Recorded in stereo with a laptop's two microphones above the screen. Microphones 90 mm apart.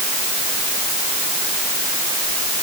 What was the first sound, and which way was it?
Only background noise.